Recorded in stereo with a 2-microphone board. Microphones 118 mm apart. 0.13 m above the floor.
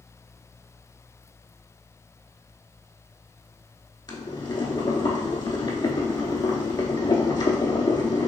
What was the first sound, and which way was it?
Boiling, 35° left (ahead or behind).